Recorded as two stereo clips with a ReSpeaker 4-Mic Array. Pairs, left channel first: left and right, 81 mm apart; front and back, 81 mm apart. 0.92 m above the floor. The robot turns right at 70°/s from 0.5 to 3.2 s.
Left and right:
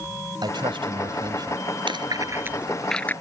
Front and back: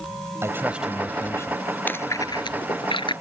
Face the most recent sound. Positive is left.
turn(degrees=25)